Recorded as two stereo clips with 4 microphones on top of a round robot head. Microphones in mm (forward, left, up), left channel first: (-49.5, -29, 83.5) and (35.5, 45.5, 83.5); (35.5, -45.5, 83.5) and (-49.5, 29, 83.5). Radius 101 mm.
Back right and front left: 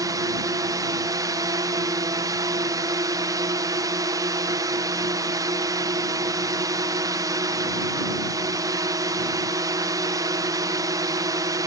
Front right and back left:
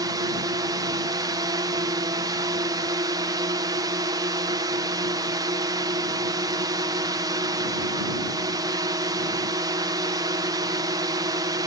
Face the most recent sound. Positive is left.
turn(degrees=90)